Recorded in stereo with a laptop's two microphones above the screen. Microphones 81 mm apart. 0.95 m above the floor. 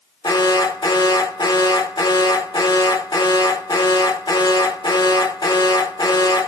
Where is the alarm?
70° left (ahead or behind), 2.5 m.